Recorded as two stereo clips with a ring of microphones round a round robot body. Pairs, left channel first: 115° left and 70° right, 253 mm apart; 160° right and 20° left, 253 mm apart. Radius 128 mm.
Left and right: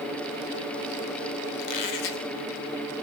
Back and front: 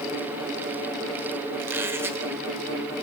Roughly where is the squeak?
Left.